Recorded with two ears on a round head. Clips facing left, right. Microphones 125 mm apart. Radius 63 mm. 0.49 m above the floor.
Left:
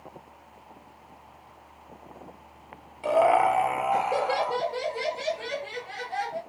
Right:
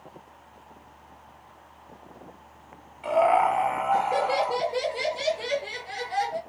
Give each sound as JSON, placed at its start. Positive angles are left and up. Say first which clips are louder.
{"t": 3.0, "sound": "laughter", "louder": "even", "side_deg": 45, "distance_m": 1.7}